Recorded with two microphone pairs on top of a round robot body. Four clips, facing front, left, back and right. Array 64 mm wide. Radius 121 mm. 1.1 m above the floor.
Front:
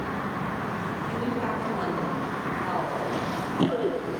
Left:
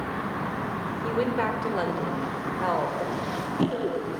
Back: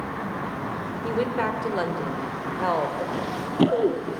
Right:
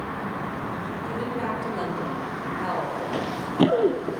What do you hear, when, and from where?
1.0 s a woman speaking: 140° left, 4.5 m; by 3.0 s 160° left, 5.5 m
3.1 s running footsteps: 110° right, 1.1 m; by 4.2 s 115° right, 1.8 m